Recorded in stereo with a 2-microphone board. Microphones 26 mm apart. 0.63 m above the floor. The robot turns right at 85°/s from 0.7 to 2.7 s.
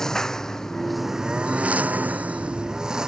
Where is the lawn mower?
160° left; by 3.1 s 30° right.